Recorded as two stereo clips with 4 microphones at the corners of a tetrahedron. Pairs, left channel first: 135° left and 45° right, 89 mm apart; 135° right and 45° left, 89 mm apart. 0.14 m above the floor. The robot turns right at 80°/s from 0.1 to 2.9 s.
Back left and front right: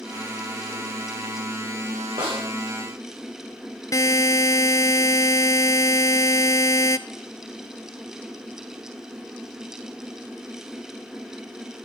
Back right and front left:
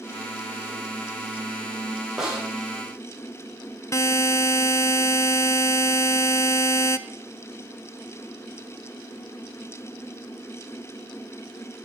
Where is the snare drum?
45° right, 7.5 m; by 2.5 s 25° right, 7.5 m.